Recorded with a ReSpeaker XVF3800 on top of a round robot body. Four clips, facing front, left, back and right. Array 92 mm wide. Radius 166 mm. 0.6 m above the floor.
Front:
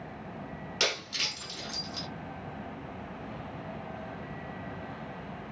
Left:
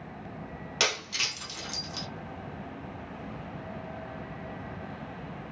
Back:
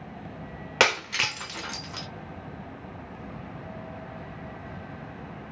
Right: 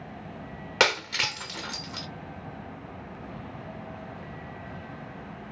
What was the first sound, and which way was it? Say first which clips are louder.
Breaking glass: right 7 dB, back 10 dB; 145° right.